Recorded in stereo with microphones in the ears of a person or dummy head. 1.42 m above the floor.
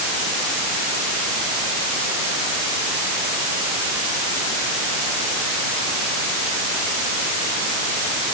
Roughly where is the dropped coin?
I don't hear a dropped coin.